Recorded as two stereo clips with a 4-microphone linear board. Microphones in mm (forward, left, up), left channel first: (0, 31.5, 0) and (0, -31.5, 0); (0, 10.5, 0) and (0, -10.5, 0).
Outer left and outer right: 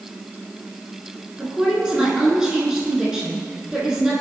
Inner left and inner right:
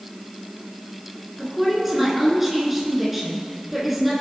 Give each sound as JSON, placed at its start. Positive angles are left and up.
{"t": 1.4, "sound": "a woman speaking", "side_deg": -15, "distance_m": 6.0}